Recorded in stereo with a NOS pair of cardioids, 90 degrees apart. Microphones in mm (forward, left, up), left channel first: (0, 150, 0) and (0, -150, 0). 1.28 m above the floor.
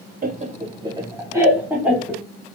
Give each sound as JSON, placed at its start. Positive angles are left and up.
{"t": 0.2, "sound": "laughter", "azimuth_deg": -30, "distance_m": 0.6}